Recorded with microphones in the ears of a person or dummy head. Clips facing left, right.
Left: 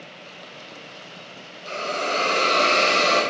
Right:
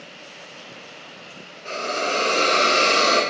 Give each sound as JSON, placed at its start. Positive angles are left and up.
{"t": 1.6, "sound": "a hiss", "side_deg": -25, "distance_m": 2.0}